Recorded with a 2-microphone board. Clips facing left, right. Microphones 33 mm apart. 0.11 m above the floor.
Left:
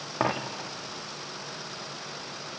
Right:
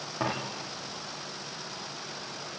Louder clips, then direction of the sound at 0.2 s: Left 4 dB; 35° left (ahead or behind).